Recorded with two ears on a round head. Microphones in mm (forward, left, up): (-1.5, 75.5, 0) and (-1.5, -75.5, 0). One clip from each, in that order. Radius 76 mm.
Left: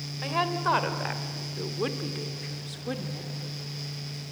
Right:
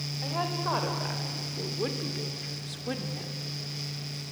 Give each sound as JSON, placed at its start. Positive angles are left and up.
{"t": 0.2, "sound": "a woman speaking", "side_deg": 55, "distance_m": 2.5}